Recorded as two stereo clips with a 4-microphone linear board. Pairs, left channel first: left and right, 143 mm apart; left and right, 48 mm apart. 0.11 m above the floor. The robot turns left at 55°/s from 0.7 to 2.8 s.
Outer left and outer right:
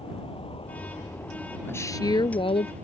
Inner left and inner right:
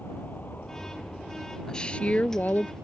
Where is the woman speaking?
160° left; by 2.7 s 100° left.